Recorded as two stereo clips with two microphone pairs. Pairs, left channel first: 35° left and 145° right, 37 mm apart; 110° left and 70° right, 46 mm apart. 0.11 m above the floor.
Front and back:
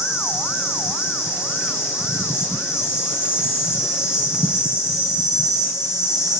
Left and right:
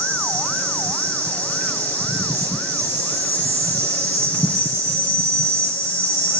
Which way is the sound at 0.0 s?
135° left.